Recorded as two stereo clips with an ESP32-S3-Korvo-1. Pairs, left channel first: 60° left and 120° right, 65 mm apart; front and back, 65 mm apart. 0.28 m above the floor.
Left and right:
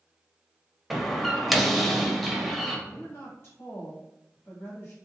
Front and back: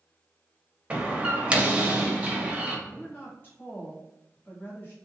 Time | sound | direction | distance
0.9 | a door slam | 150° left | 0.6 m
2.9 | a woman speaking | 40° left | 1.6 m